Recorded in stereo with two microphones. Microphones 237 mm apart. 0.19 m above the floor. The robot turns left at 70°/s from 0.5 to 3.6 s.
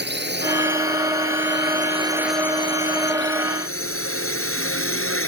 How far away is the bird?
I don't hear a bird.